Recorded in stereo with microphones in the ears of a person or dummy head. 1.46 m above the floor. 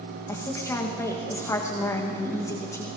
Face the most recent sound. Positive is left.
turn(degrees=10)  # may be behind; listen again after turning